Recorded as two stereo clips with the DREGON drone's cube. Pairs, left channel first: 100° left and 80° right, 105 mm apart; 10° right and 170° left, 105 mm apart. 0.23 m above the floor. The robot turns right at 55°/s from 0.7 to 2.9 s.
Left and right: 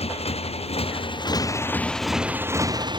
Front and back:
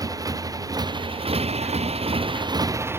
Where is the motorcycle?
115° left; by 3.0 s 125° right.